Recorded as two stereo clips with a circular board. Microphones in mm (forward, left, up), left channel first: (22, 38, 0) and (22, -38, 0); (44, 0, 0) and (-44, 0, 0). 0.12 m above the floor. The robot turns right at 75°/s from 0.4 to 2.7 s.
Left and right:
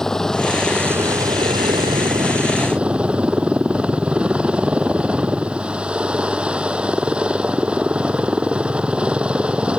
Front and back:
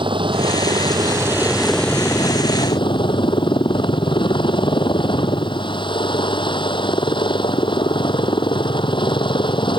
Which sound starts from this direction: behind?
A helicopter, at 0.0 s.